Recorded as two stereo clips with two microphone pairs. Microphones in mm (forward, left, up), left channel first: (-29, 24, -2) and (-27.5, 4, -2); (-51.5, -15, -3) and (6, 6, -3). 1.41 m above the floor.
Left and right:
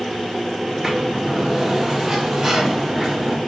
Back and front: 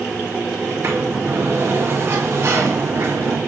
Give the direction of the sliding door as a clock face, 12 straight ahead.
1 o'clock.